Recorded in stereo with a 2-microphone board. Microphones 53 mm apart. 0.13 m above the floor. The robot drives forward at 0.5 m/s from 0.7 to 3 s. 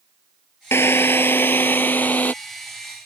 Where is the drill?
55° left (ahead or behind); by 2.3 s 35° left (ahead or behind).